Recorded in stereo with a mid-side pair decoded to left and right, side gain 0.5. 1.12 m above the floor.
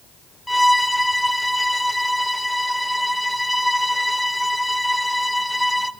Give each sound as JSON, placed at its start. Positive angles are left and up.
{"t": 0.5, "sound": "a violin", "azimuth_deg": 10, "distance_m": 0.6}